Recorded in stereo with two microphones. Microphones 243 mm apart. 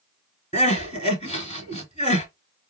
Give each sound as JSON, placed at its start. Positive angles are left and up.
{"t": 0.5, "sound": "crying", "side_deg": 30, "distance_m": 1.8}